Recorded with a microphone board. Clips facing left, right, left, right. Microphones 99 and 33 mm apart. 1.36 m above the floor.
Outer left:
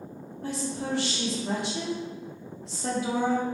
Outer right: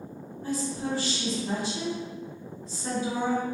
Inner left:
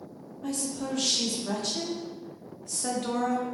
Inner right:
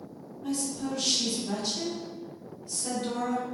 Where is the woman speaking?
70° left (ahead or behind), 1.0 m.